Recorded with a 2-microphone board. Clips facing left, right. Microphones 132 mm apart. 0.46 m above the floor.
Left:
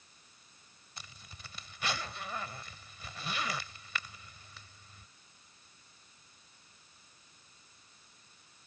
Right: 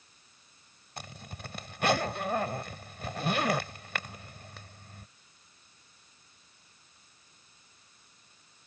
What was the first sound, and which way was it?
A zipper, 60° right (ahead or behind).